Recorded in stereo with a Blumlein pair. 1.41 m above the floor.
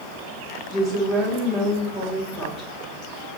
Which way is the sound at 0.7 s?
10° right.